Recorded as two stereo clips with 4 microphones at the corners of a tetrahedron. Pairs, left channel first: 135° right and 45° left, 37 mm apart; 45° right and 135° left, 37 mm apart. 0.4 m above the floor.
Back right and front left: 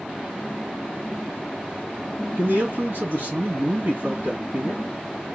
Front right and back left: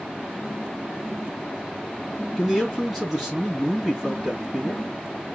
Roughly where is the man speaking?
Ahead left.